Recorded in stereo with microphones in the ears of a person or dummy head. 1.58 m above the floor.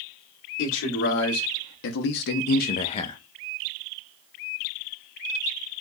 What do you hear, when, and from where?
0.6 s a man speaking: 65° left (ahead or behind), 1.7 m; by 3.2 s 20° left (ahead or behind), 0.6 m